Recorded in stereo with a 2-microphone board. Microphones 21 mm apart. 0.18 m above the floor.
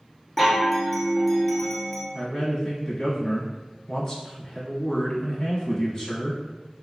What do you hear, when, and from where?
0.4 s a chime: centre (ahead or behind), 0.6 m
2.1 s a man speaking: 30° left (ahead or behind), 1.2 m